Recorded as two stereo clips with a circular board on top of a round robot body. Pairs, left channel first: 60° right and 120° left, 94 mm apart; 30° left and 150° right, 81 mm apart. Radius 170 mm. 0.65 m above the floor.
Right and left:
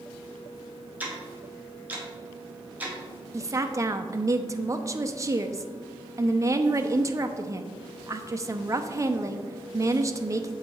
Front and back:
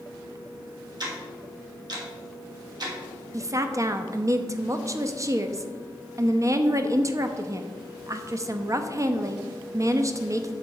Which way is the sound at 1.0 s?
170° right.